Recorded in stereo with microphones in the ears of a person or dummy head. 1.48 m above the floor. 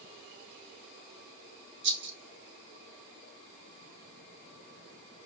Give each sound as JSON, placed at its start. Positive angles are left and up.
{"t": 1.8, "sound": "a rattle", "side_deg": -60, "distance_m": 1.0}